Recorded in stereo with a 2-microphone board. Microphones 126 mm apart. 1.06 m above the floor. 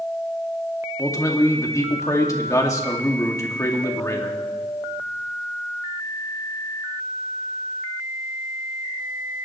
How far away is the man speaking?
About 2 m.